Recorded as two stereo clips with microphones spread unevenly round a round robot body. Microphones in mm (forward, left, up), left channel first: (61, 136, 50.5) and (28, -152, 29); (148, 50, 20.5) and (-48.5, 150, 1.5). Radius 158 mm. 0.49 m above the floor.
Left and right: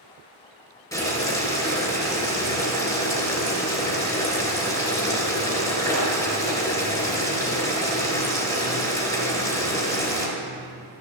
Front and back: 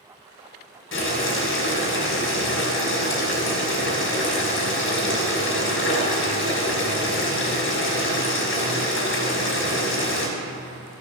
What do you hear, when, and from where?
0.9 s boiling: 5° left, 3.5 m